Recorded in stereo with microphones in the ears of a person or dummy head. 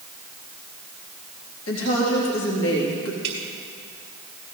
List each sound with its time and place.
1.7 s a woman speaking: 85° left, 3 m
3.2 s dripping: 40° right (ahead or behind), 4.5 m